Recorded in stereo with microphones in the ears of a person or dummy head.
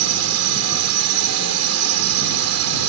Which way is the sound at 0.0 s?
75° right (ahead or behind).